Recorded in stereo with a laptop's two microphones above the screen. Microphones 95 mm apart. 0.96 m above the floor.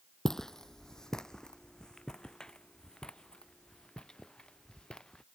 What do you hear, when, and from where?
0.2 s footsteps: 5° left (ahead or behind); by 5.2 s 10° left (ahead or behind)